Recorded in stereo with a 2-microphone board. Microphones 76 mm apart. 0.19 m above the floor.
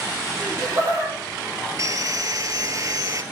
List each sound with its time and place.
0.4 s laughter: 45° right (ahead or behind), 6 m; by 1.7 s 50° right (ahead or behind), 5.5 m
1.8 s sawing: 45° right (ahead or behind), 0.6 m